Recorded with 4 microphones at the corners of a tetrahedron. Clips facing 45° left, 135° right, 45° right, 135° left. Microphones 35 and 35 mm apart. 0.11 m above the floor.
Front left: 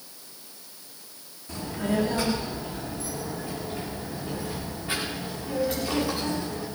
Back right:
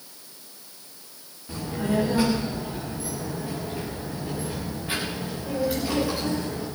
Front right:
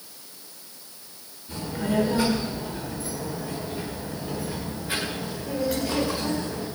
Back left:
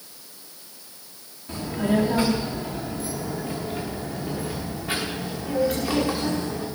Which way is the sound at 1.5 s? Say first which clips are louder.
Back right 2 dB, back left 3 dB; 150° left.